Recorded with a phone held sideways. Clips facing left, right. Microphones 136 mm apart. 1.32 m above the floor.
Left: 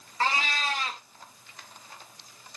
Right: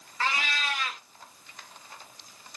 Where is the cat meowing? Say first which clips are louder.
Left 3 dB; 35° left (ahead or behind), 0.8 m.